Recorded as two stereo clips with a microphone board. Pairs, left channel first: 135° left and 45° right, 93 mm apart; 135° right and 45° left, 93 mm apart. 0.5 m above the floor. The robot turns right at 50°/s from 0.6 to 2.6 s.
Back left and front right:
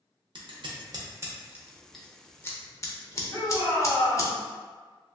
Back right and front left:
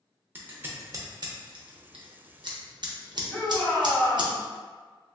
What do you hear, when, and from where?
0.3 s scissors: 20° right, 0.5 m; by 4.3 s 80° left, 0.5 m
3.3 s a shout: 145° left, 1.6 m